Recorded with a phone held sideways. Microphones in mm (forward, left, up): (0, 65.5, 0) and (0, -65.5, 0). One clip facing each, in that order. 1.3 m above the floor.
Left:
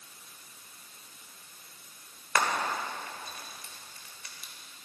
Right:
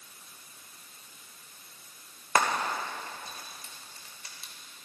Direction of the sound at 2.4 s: 30° right (ahead or behind).